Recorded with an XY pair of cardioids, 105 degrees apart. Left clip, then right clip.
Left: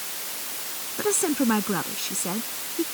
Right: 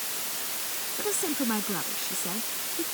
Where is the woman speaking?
45° left.